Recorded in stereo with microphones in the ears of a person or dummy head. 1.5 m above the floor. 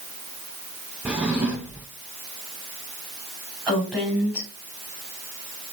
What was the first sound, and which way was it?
A drawer, 5° right (ahead or behind).